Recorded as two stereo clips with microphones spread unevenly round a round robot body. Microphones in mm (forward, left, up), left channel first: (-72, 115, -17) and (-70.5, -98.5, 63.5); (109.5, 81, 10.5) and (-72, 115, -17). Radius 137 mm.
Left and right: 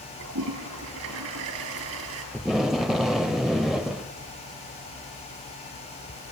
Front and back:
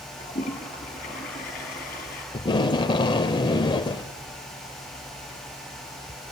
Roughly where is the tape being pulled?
Ahead right.